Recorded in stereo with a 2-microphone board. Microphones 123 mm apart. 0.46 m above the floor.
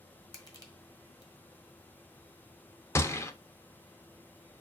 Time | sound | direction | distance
0.3 | crushing | 35° left (ahead or behind) | 1.2 m
3.0 | a gunshot | 25° left (ahead or behind) | 0.5 m